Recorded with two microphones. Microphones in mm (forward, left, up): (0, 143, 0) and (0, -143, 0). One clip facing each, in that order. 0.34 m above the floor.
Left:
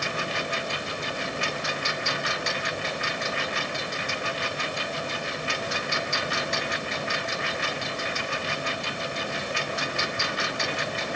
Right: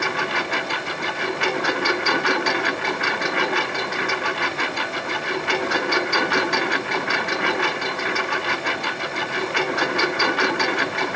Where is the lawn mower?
70° right (ahead or behind).